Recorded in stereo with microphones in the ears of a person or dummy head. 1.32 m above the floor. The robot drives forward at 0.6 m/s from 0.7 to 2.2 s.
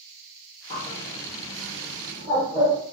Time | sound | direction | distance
0.7 | a bird | 30° left (ahead or behind) | 0.5 m